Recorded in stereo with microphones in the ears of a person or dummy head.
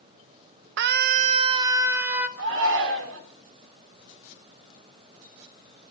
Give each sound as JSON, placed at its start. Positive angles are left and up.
{"t": 0.8, "sound": "a scream", "side_deg": -65, "distance_m": 0.8}
{"t": 2.4, "sound": "a shout", "side_deg": -75, "distance_m": 4.0}